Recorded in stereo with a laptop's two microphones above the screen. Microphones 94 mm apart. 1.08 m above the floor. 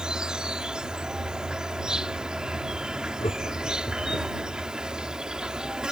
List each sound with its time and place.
0.0 s an insect: 5° right (ahead or behind)
3.2 s laughter: 80° left